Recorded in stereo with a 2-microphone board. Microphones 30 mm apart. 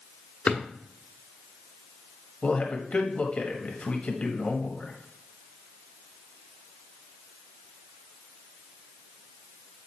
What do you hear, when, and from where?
0.5 s a drawer: 40° left (ahead or behind), 1.2 m
2.4 s a man speaking: 40° left (ahead or behind), 1.4 m